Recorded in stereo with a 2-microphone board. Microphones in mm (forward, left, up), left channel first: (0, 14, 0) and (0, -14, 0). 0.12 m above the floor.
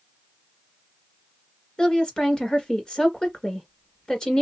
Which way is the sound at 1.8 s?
25° left (ahead or behind).